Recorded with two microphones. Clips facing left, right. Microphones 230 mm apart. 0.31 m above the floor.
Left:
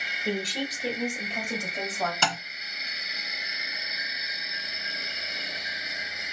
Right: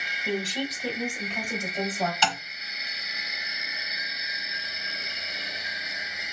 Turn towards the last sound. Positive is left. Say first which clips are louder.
# right 1 dB
turn(degrees=50)  # may be behind; listen again after turning